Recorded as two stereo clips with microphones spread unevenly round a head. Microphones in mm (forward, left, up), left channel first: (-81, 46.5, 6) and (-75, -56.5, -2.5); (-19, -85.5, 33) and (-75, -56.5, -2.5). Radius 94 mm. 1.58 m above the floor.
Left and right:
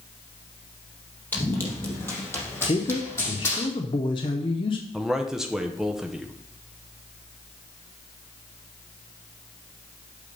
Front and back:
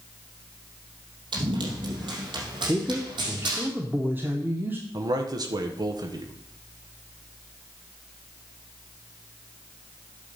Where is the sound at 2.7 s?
60° left, 0.6 m.